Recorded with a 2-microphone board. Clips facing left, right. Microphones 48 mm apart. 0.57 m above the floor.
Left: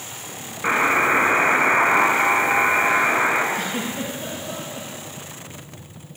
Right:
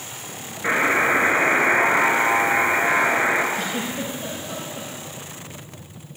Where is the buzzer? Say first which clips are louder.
Left 1 dB; 50° left (ahead or behind), 3.5 m.